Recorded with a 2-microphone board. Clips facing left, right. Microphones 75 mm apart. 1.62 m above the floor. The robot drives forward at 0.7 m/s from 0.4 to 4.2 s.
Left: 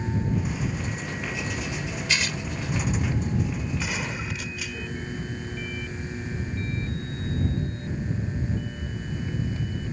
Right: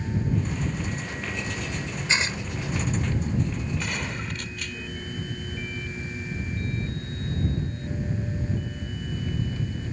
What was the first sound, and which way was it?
Tearing paper, 25° right (ahead or behind).